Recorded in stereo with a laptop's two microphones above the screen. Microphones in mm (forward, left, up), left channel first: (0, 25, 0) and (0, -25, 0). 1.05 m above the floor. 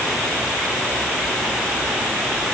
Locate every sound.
Only background noise.